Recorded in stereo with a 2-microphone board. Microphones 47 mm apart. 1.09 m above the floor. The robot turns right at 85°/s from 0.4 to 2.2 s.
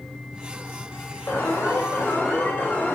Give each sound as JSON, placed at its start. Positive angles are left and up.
{"t": 1.3, "sound": "an alarm", "azimuth_deg": 50, "distance_m": 4.0}